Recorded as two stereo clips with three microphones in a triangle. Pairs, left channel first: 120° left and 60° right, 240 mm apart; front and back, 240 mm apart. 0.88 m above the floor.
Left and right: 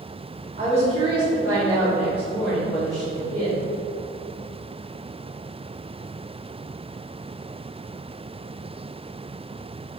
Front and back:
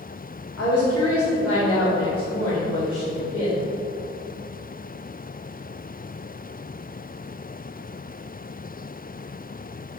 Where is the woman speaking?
5° left, 2 m; by 3.7 s 55° left, 4 m.